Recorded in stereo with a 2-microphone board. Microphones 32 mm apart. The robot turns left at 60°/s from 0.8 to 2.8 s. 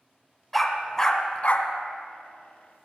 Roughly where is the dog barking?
Centre.